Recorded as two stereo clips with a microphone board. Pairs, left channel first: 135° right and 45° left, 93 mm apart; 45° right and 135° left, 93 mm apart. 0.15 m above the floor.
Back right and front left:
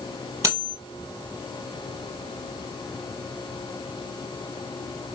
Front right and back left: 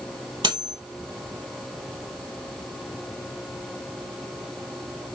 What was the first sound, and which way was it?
Cutlery clinking, 100° left.